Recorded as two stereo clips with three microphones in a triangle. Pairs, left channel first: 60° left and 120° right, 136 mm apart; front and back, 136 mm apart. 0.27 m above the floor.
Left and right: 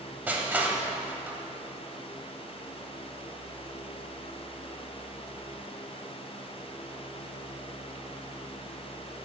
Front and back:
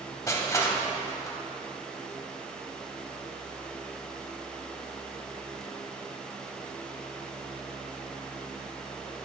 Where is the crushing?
50° right, 0.7 m.